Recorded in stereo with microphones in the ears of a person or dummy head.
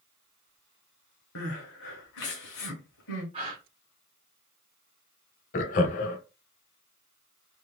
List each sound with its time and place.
1.4 s crying: 75° left (ahead or behind), 0.8 m
3.3 s a gasp: 35° right (ahead or behind), 1.3 m
5.5 s laughter: 50° left (ahead or behind), 0.7 m